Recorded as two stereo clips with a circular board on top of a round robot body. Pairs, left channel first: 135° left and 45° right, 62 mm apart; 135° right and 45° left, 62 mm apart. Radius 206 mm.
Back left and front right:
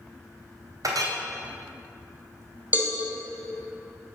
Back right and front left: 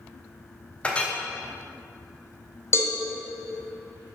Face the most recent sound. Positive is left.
turn(degrees=-100)